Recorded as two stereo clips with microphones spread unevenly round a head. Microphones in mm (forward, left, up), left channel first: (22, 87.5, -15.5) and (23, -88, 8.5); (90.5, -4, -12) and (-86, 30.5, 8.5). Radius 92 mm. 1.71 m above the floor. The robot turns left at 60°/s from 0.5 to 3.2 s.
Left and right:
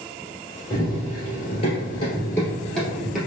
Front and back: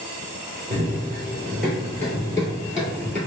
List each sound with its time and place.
0.7 s running footsteps: 160° left, 2.0 m; by 3.2 s 100° right, 1.7 m